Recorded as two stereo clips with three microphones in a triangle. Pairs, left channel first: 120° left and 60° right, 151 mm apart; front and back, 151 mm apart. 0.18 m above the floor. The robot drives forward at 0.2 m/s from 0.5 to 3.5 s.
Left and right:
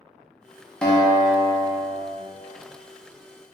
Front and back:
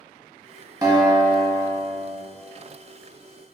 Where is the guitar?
160° right, 0.6 m; by 2.2 s 170° right, 0.8 m.